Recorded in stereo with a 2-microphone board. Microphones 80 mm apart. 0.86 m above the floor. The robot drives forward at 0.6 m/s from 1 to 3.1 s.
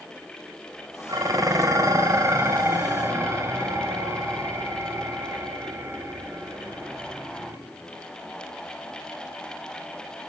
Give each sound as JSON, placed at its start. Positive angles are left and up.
{"t": 1.1, "sound": "dishes clattering", "side_deg": -50, "distance_m": 2.5}